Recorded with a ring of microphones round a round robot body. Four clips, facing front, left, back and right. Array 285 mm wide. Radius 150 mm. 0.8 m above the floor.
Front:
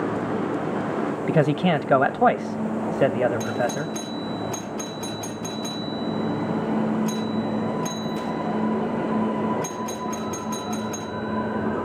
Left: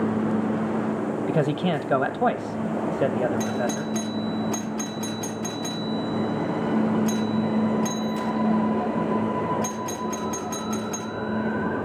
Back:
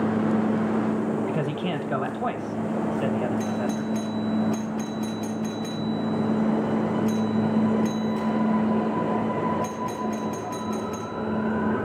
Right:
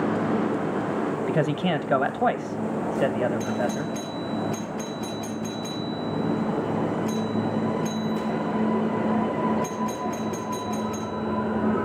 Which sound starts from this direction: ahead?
A man speaking, at 1.3 s.